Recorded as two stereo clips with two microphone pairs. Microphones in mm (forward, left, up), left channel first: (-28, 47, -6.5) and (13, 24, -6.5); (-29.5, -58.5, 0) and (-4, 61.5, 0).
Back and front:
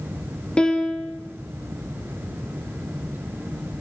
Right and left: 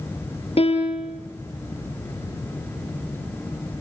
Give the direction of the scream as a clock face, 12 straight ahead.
No scream in this recording.